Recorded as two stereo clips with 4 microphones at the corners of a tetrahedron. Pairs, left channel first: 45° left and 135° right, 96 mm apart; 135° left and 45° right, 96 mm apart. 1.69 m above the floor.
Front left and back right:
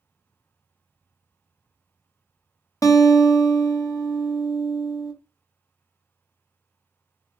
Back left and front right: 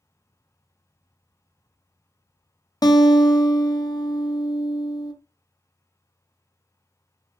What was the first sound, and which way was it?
A guitar, 95° left.